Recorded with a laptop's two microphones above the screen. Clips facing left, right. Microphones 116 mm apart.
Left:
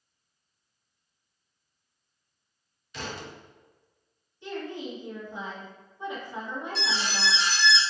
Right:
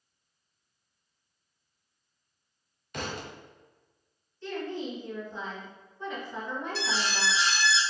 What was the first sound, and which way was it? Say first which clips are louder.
A thud: right 1 dB; 50° right (ahead or behind).